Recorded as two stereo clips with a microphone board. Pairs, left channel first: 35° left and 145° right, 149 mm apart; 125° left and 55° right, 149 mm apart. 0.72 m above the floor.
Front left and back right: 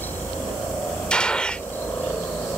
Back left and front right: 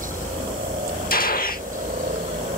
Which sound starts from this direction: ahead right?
A helicopter, at 0.0 s.